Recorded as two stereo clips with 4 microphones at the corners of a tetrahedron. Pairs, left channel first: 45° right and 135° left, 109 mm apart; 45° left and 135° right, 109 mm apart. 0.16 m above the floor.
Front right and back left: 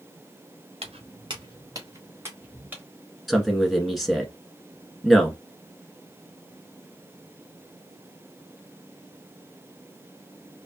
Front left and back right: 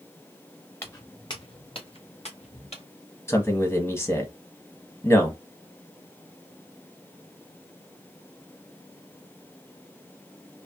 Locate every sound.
0.8 s footsteps: 110° left, 1.3 m; by 2.8 s 60° left, 2.5 m
3.3 s a man speaking: 45° left, 1.1 m